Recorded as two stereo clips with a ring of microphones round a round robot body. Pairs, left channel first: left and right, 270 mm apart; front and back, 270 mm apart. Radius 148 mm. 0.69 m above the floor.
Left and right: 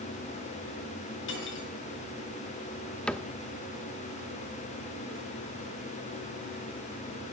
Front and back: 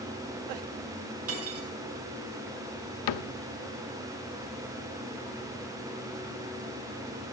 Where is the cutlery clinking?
145° left, 5 m.